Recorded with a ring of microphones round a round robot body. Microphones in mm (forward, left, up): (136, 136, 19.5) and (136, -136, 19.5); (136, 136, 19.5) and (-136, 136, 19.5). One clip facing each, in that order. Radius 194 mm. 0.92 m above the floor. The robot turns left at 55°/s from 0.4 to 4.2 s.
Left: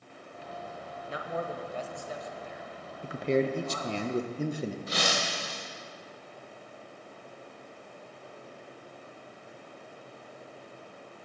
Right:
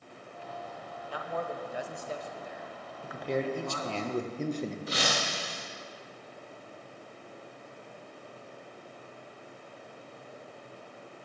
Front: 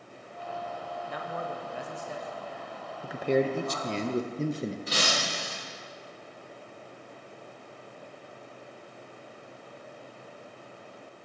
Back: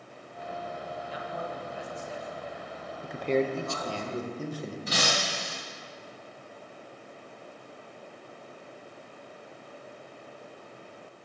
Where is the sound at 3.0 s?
85° left, 0.6 m; by 4.8 s 20° left, 0.6 m.